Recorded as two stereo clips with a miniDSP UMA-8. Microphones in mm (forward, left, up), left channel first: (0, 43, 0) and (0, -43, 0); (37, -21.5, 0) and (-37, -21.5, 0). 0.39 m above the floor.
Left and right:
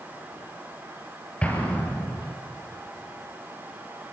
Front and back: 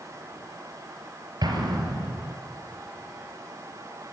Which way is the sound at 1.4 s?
165° left.